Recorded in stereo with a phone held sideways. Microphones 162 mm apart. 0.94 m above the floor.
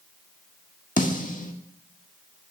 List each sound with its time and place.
1.0 s a snare drum: 55° left (ahead or behind), 1.6 m